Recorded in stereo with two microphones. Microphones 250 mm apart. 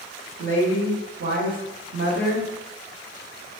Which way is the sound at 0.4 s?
40° right (ahead or behind).